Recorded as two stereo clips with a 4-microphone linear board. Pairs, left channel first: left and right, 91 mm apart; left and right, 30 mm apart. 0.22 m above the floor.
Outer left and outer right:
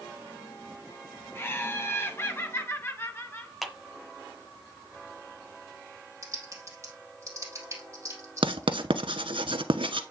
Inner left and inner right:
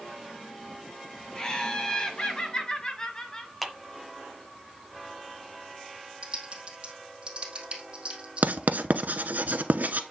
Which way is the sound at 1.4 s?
25° left (ahead or behind).